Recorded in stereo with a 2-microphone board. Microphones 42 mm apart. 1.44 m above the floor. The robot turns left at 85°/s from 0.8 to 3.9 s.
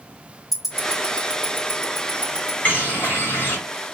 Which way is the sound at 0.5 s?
5° right (ahead or behind).